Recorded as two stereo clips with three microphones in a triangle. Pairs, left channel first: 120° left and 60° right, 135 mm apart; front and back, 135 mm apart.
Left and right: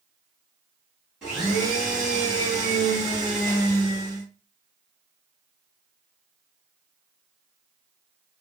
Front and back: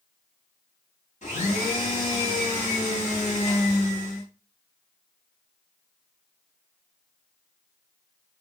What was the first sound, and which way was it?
A blender, 25° left.